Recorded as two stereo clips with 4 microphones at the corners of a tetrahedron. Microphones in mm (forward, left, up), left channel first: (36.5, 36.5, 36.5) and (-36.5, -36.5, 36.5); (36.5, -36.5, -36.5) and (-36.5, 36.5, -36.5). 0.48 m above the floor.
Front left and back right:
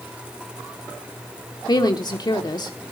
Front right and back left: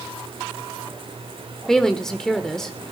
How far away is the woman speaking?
About 1.1 m.